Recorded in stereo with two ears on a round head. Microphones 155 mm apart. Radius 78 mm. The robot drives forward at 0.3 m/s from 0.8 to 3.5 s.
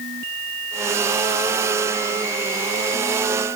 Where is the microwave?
I don't hear a microwave.